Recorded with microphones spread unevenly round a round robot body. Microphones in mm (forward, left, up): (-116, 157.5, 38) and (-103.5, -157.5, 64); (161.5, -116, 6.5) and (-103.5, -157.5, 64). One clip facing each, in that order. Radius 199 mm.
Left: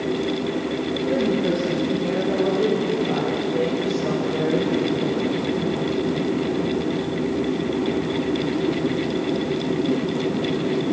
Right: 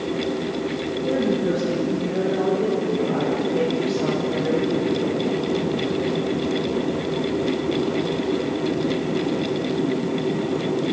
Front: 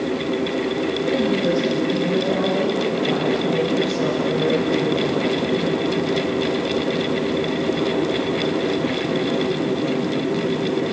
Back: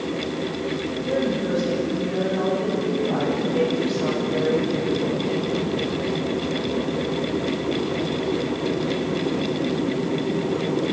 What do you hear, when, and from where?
1.0 s a woman speaking: 20° left, 9 m; by 5.2 s 15° left, 13 m